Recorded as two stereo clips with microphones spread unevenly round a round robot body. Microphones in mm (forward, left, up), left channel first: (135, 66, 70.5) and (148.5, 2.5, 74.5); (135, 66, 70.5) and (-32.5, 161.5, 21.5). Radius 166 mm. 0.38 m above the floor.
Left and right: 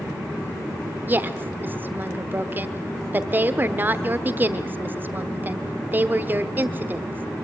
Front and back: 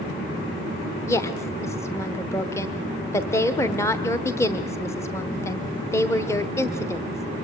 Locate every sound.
1.1 s a woman speaking: 120° right, 1.0 m